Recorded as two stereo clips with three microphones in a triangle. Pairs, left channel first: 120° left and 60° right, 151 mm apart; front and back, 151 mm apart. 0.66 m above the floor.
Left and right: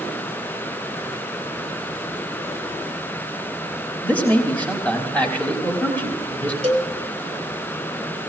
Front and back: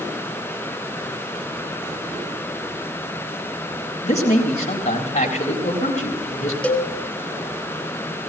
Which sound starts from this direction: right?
A cowbell, at 6.6 s.